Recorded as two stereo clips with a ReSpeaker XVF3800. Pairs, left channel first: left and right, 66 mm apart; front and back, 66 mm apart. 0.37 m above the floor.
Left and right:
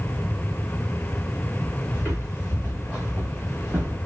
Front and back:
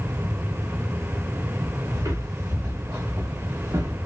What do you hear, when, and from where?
1.9 s footsteps: 145° right, 2.5 m